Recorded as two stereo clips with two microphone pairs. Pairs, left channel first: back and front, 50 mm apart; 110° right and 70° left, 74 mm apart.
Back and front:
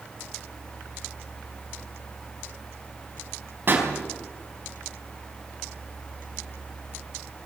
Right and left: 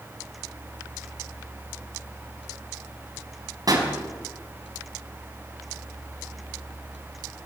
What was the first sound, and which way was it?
A pop, 40° left.